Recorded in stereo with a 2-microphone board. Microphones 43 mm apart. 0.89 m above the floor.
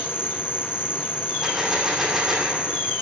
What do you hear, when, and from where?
0.0 s an insect: 65° left (ahead or behind), 2.5 m
1.4 s a gunshot: 10° right (ahead or behind), 2.5 m